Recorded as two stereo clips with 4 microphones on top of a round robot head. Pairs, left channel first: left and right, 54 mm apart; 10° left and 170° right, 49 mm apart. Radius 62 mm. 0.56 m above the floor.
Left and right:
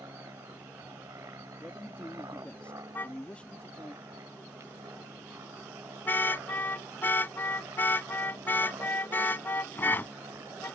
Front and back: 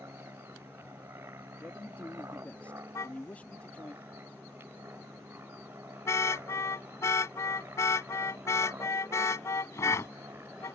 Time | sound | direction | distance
0.0 | an aircraft | 130° right | ?
1.6 | a man speaking | 40° left | ?
3.0 | a car horn | 35° left | ?